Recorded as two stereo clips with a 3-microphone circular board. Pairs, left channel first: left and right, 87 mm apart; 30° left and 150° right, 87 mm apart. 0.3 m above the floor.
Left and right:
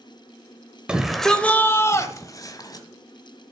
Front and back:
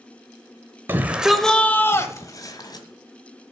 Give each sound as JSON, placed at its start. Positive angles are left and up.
{"t": 0.9, "sound": "a shout", "azimuth_deg": -155, "distance_m": 0.9}